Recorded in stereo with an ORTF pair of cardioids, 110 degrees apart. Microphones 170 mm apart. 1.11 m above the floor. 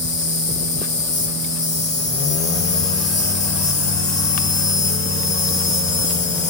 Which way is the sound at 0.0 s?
45° left.